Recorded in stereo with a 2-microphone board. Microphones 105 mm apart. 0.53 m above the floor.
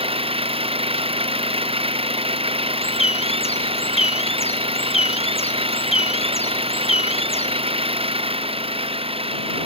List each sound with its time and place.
0.0 s an engine running: 65° right (ahead or behind)
2.8 s a bird: 75° left (ahead or behind)